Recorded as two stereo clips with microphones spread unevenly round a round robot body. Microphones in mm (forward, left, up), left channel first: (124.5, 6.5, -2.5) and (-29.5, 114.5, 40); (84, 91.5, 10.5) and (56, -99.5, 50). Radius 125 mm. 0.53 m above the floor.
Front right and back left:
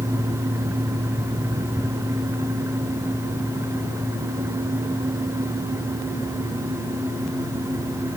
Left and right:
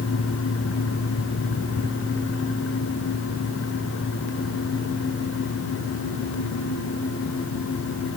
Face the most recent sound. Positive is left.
No sound to turn to.